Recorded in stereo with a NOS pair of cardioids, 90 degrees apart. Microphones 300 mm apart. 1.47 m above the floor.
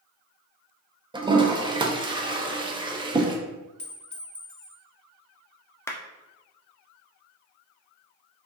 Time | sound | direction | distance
1.1 | a toilet flushing | 15° right | 0.6 m
3.8 | a clink | 5° left | 1.4 m
5.9 | a clap | 10° left | 0.6 m